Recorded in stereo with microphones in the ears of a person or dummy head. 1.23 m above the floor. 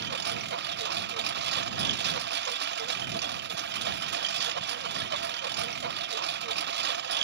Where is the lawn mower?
60° right (ahead or behind).